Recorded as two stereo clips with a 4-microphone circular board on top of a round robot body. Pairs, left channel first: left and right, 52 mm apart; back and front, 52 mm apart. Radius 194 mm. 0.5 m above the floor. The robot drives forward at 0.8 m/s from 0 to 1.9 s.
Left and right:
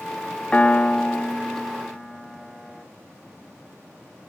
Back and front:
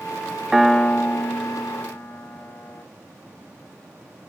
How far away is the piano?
About 0.6 m.